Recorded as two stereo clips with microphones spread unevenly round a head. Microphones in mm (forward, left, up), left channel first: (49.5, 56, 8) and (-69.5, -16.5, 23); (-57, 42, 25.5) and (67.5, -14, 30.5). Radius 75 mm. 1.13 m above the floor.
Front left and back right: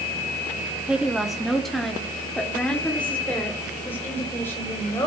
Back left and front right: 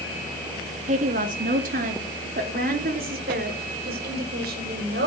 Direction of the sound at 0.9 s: 65° right.